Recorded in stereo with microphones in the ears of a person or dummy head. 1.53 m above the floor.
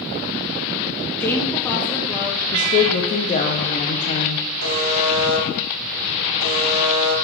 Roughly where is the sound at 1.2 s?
Centre.